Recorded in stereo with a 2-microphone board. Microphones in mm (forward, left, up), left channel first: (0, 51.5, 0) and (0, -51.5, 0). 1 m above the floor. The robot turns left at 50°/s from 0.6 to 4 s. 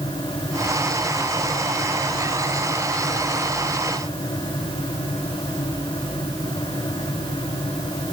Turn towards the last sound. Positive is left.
No sound to turn to.